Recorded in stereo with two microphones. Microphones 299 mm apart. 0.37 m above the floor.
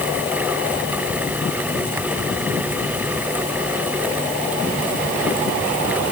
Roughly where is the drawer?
No drawer in this recording.